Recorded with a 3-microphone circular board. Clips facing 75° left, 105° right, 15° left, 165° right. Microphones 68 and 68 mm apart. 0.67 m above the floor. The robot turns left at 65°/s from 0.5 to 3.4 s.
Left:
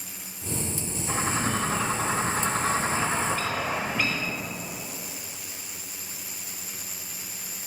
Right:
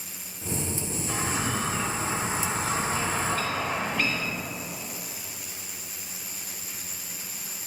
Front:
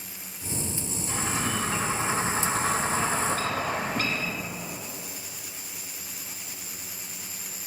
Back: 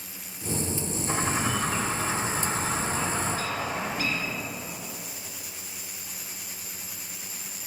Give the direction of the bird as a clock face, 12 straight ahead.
7 o'clock.